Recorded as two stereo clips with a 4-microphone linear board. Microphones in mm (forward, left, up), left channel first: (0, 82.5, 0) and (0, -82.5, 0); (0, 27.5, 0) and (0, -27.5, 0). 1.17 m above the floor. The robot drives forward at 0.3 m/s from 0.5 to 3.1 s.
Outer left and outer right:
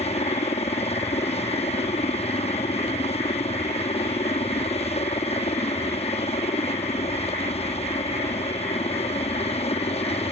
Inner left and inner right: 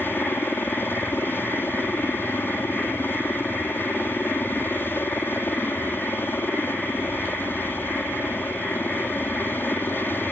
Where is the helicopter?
40° left (ahead or behind).